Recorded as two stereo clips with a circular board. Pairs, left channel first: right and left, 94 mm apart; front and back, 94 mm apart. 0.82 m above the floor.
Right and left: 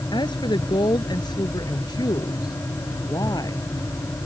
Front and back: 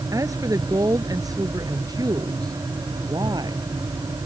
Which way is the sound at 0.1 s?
125° right.